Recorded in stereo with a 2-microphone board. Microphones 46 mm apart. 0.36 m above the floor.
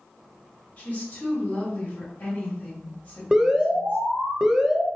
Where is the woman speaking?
35° left (ahead or behind), 1.9 m.